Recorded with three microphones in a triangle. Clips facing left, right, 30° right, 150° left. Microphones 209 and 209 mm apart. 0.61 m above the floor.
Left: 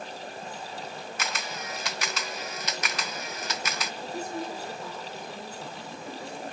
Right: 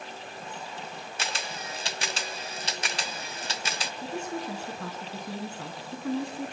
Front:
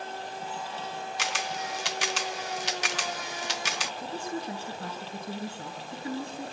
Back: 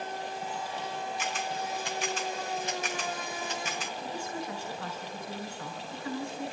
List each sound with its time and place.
1.2 s a camera shutter: 30° right, 1.0 m
4.0 s a woman speaking: 85° right, 7 m